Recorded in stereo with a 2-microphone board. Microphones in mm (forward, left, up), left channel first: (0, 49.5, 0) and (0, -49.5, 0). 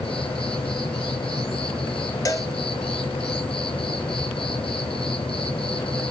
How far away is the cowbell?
About 0.5 m.